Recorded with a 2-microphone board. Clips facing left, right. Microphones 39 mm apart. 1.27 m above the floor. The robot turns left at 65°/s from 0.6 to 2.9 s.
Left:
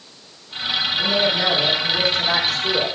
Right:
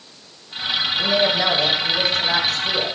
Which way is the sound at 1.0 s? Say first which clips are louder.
Right 1 dB; 160° right.